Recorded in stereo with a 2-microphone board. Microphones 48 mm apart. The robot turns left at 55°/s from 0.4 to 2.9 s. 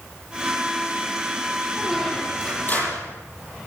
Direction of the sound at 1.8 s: 165° right.